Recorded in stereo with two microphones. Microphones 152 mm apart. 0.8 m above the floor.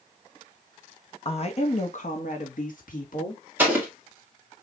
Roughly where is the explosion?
Centre.